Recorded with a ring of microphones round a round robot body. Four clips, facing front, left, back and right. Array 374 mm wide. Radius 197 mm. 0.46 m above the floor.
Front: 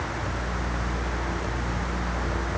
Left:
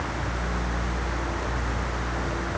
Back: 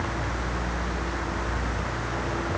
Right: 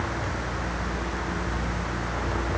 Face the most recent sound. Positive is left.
No sound to turn to.